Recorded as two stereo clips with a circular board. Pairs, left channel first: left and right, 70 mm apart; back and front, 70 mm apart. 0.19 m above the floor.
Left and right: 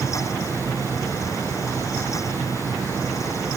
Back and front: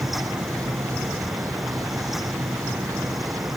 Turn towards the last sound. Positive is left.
turn(degrees=-40)